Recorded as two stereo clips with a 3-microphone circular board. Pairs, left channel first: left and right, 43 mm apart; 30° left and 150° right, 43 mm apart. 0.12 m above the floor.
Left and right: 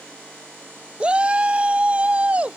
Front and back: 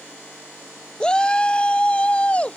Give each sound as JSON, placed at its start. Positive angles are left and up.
{"t": 1.0, "sound": "a shout", "azimuth_deg": -35}